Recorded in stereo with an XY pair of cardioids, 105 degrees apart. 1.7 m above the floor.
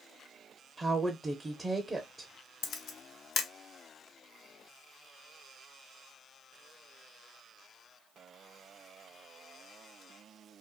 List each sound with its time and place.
0.8 s a woman speaking: 20° right, 0.5 m
2.6 s a camera shutter: 70° left, 0.5 m